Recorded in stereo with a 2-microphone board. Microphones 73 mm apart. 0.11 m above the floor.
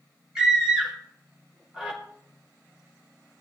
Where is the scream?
10° right (ahead or behind), 5.5 m.